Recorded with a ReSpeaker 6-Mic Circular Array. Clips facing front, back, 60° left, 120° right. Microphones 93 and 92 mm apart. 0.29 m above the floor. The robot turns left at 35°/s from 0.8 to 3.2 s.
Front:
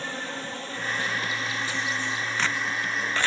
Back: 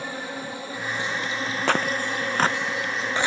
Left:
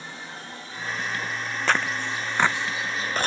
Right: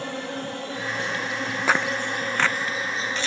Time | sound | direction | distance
0.0 | an insect | 105° right | ?
1.7 | tearing paper | 160° left | ?